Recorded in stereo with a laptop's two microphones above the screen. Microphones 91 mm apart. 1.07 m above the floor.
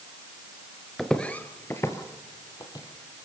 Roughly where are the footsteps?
Centre.